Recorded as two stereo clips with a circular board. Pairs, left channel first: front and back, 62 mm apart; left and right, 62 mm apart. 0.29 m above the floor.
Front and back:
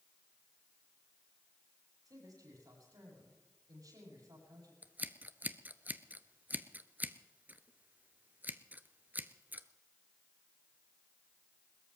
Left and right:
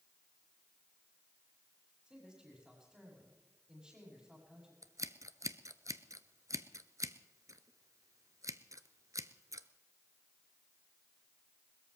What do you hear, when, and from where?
2.0 s a man speaking: 165° right, 9.5 m
4.8 s scissors: 120° right, 0.7 m